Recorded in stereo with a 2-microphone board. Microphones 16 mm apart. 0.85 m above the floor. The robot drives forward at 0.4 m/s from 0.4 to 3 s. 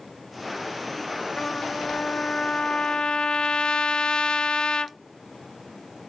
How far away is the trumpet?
About 0.8 m.